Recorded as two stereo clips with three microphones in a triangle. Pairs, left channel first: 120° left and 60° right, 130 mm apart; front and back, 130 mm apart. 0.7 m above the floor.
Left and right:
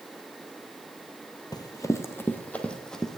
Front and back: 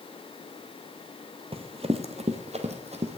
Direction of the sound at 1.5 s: 165° left.